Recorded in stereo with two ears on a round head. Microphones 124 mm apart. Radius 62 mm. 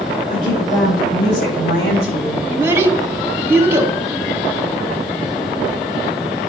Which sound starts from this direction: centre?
A child speaking, at 2.5 s.